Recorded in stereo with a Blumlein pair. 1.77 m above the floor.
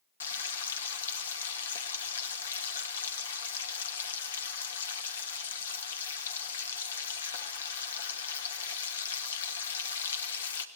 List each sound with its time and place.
0.2 s frying: 65° left, 2.5 m